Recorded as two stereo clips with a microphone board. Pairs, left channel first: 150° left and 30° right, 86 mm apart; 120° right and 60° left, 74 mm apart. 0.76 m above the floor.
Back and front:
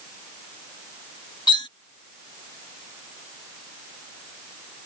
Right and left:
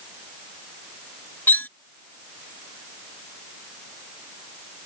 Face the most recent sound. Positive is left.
turn(degrees=175)